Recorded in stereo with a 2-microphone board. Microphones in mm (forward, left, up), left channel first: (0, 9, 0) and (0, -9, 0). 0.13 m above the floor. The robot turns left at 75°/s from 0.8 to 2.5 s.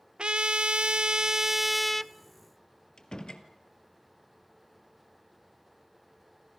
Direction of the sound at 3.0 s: 45° left (ahead or behind).